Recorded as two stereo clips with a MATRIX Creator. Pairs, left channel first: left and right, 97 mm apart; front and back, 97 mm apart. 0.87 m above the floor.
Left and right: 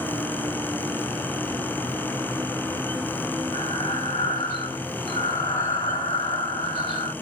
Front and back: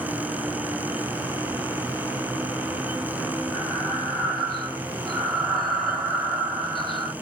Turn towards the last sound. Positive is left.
turn(degrees=85)